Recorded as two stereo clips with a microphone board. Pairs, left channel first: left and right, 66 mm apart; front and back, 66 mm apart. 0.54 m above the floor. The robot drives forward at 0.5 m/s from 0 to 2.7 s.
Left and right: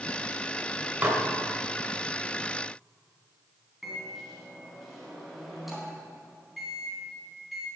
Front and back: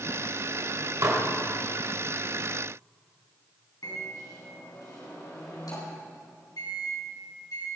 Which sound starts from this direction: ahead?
A microwave, at 3.8 s.